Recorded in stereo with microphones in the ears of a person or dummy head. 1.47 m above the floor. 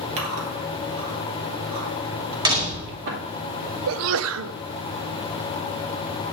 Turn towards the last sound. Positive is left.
turn(degrees=-75)  # may be behind; listen again after turning